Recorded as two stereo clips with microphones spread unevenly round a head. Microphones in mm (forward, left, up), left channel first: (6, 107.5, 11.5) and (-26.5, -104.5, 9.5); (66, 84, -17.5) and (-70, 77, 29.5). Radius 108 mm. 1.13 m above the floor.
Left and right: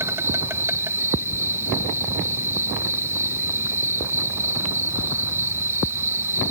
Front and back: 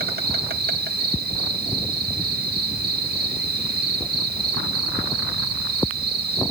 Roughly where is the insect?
Behind.